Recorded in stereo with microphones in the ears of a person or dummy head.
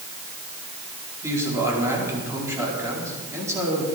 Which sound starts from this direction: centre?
A man speaking, at 1.2 s.